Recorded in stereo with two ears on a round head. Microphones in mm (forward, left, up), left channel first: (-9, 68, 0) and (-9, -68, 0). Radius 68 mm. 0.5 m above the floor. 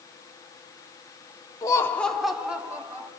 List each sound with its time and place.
1.6 s laughter: 25° left (ahead or behind), 0.9 m; by 3.1 s 15° right (ahead or behind), 2 m